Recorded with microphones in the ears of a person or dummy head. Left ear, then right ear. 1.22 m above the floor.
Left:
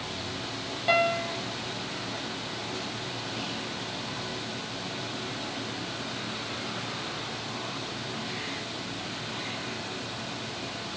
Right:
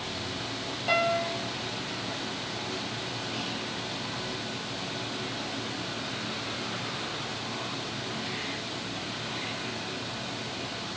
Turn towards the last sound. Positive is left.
turn(degrees=20)  # may be behind; listen again after turning